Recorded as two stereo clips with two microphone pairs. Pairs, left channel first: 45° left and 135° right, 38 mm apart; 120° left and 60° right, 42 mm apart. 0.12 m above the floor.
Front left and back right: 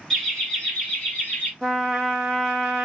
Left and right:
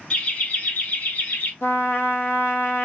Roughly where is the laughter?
Behind left.